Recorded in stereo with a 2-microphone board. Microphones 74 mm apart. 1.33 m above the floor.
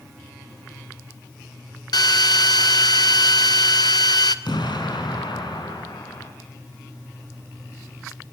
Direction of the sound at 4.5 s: 80° left.